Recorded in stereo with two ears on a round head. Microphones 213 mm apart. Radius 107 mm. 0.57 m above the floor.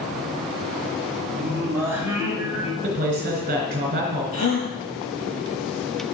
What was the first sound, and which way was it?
Singing, 10° right (ahead or behind).